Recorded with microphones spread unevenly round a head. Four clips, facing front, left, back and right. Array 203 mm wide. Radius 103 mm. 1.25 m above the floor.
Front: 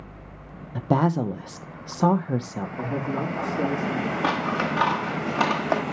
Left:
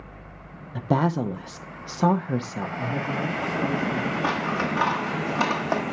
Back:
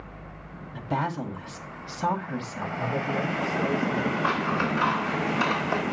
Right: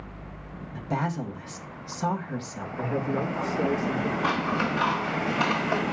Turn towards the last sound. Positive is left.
turn(degrees=20)